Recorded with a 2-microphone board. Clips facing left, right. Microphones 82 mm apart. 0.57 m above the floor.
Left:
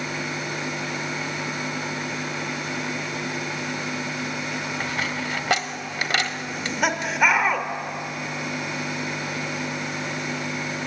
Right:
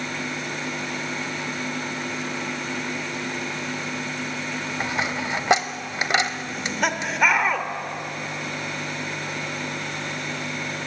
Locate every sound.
4.8 s a dropped coin: 20° right (ahead or behind), 1.1 m
6.5 s laughter: 5° left (ahead or behind), 2 m